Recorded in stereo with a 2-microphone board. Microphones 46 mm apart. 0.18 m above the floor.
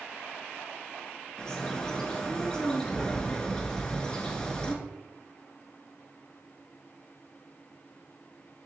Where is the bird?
20° left (ahead or behind), 0.7 m.